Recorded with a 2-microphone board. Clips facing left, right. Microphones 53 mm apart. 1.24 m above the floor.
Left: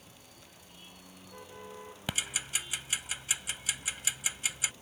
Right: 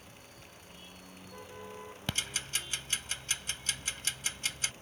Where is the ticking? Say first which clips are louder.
Left 1 dB; 10° left (ahead or behind).